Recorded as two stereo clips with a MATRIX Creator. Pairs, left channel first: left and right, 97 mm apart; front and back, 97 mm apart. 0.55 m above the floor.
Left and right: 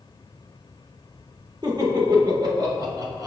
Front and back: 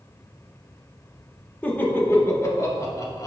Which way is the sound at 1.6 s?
70° right.